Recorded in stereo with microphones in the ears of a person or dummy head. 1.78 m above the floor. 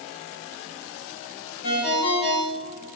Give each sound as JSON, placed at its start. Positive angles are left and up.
{"t": 1.6, "sound": "a ringtone", "side_deg": 60, "distance_m": 4.0}